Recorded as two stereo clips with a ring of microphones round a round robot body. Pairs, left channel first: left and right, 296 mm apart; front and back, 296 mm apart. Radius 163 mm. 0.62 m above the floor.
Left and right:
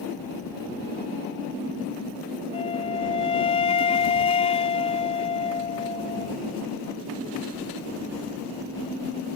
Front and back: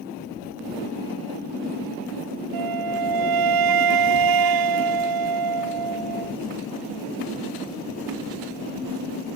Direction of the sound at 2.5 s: 165° left.